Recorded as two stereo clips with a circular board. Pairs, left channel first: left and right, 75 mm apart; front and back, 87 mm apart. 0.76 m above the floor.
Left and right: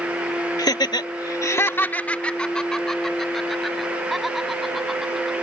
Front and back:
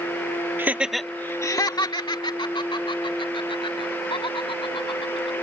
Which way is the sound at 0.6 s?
115° left.